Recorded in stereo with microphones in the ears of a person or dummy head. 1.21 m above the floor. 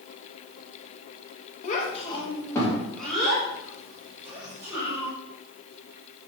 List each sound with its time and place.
1.6 s a child speaking: 45° left (ahead or behind), 0.9 m; by 5.1 s 15° right (ahead or behind), 2.5 m